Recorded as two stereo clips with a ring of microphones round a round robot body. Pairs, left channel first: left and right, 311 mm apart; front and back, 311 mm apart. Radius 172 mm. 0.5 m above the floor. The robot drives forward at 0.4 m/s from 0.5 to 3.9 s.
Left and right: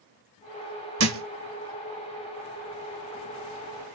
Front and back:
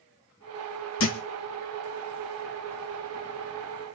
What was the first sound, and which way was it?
A thud, 55° right.